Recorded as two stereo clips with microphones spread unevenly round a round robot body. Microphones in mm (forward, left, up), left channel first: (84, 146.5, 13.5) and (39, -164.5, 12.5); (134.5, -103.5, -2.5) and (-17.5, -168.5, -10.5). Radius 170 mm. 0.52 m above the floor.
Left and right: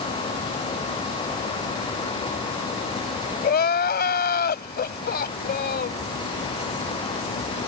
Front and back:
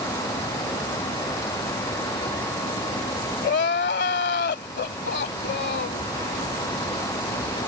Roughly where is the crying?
Ahead.